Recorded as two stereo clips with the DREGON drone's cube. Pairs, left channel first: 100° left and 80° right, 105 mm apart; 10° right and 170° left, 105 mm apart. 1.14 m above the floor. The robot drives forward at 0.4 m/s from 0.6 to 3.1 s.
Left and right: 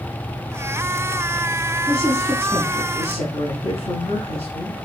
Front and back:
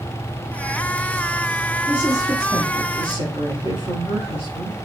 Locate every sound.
1.9 s a woman speaking: 120° left, 6.5 m; by 4.8 s 125° left, 7 m